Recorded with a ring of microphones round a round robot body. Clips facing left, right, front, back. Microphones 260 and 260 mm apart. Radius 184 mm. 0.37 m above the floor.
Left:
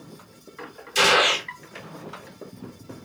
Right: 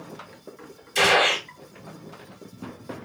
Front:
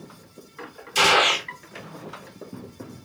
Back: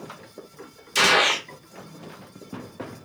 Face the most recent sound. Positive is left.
turn(degrees=175)